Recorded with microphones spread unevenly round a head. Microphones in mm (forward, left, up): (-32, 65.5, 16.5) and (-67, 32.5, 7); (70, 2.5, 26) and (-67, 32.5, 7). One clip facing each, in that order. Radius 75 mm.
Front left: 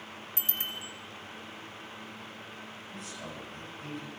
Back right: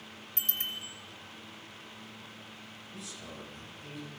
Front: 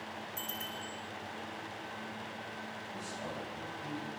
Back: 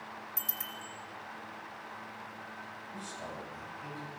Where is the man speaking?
75° left, 9 m.